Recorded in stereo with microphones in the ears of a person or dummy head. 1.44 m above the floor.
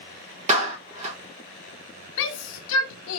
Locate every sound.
0.5 s a clap: 35° right (ahead or behind), 1.2 m
2.2 s a shout: 75° left (ahead or behind), 0.6 m